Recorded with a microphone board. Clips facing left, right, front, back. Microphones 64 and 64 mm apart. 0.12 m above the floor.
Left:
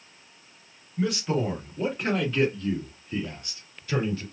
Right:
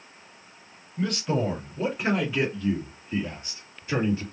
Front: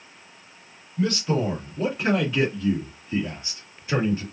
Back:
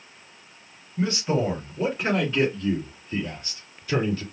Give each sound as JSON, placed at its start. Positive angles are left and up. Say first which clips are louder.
{"t": 1.0, "sound": "a man speaking", "louder": "even, even", "azimuth_deg": 160, "distance_m": 1.7}